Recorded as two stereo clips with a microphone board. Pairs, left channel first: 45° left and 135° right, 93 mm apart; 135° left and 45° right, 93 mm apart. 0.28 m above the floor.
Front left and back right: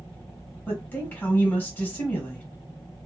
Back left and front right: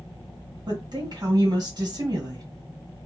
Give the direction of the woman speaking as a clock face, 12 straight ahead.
1 o'clock.